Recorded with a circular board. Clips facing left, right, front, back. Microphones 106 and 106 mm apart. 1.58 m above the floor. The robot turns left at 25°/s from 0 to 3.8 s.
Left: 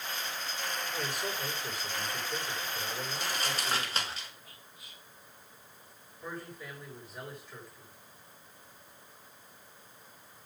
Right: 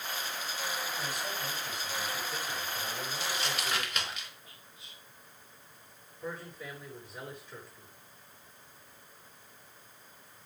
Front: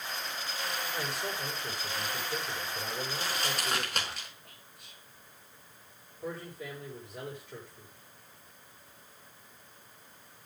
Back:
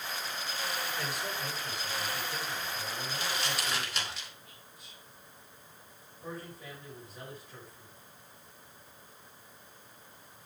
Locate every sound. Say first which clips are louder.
0.9 s a man speaking: left 1 dB, front 1 dB; 65° left, 7 m; by 4.2 s 5° right, 7 m
3.1 s crumpling: even, back 2 dB; 50° left, 3.5 m; by 4.3 s 35° left, 3.5 m
4.5 s whispering: left 1 dB, back 1 dB; 25° right, 4.5 m
6.2 s a man speaking: right 1 dB, front 4 dB; 5° right, 6.5 m